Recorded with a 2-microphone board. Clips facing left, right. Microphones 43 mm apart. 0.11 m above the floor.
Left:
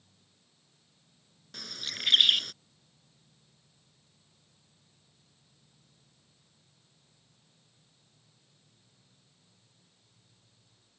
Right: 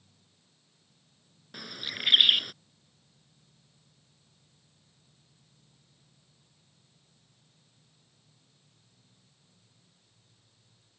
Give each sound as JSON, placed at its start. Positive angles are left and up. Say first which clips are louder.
{"t": 1.5, "sound": "a bird", "louder": "right 2 dB", "side_deg": -15}